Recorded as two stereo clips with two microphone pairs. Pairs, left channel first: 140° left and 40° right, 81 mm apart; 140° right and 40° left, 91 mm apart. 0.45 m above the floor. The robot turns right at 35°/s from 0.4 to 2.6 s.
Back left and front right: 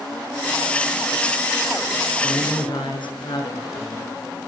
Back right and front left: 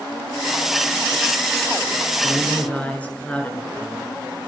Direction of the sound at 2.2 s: 130° left.